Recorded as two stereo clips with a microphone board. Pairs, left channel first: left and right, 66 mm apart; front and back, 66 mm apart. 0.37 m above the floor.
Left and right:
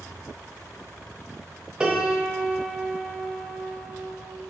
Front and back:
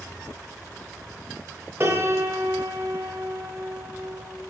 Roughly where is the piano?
Behind right.